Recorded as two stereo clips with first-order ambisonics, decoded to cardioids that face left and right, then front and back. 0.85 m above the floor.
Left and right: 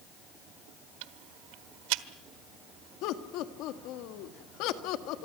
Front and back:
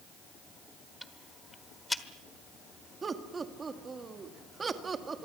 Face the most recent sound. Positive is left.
turn(degrees=110)